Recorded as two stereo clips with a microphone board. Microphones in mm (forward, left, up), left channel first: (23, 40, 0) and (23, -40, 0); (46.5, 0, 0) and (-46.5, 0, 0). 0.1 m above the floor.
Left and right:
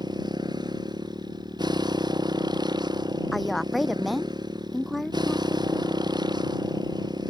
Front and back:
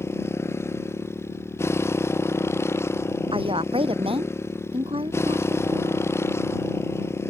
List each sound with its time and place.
0.0 s a motorcycle: 60° right
3.3 s a woman speaking: straight behind